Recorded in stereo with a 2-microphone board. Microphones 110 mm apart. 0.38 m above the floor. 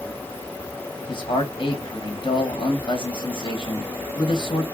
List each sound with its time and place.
1.1 s a man speaking: 50° left (ahead or behind), 1.7 m